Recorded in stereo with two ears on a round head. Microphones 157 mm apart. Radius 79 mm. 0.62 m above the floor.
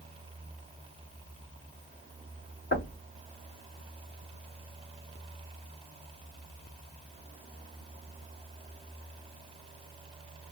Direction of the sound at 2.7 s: 60° left (ahead or behind).